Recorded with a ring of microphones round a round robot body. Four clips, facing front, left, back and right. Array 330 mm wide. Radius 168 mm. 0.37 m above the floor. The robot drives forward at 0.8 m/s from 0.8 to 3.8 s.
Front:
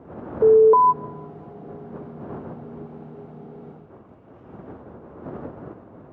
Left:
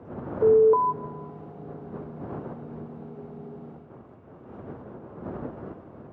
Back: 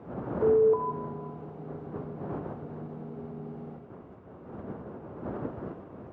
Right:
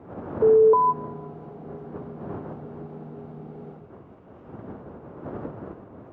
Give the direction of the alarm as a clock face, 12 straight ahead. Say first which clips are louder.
Right 2 dB, front 10 dB; 12 o'clock.